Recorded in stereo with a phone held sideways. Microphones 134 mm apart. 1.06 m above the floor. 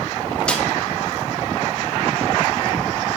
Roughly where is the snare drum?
Centre.